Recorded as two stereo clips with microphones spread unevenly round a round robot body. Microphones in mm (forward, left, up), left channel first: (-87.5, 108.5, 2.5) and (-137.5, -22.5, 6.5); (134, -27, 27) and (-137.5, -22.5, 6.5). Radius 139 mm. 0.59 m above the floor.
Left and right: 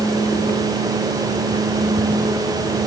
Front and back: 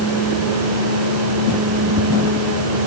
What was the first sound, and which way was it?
Only background noise.